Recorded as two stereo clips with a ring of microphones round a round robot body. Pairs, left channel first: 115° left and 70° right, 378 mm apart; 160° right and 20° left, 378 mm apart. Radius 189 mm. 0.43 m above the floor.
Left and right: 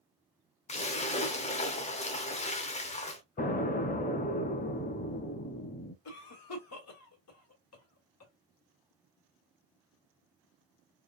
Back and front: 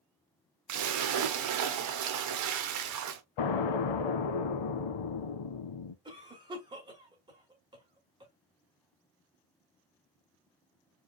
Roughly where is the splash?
Ahead left.